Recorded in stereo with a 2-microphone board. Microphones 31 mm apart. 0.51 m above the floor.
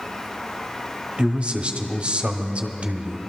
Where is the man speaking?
45° right (ahead or behind), 1.0 m.